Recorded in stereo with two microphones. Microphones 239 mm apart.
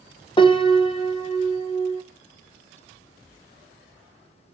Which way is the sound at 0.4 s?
20° left (ahead or behind).